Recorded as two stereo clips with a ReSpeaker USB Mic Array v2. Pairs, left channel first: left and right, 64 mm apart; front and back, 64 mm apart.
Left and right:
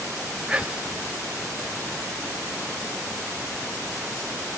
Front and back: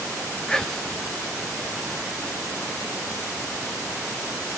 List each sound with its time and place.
0.5 s whispering: 65° right, 1.1 m